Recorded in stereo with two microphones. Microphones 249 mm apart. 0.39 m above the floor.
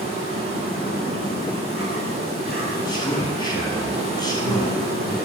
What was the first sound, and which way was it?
An insect, 60° right (ahead or behind).